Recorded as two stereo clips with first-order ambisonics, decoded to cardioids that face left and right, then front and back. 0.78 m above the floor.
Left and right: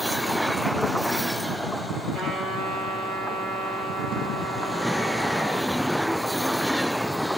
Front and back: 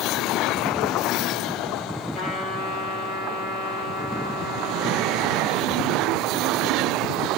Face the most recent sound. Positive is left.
turn(degrees=-35)